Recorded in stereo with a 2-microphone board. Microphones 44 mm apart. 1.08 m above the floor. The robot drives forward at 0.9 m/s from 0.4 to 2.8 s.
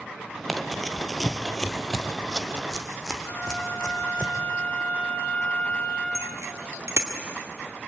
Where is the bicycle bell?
90° right, 2 m.